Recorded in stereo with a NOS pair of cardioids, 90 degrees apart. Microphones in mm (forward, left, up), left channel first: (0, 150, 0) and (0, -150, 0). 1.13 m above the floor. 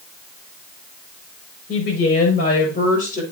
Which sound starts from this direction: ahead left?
A woman speaking, at 1.7 s.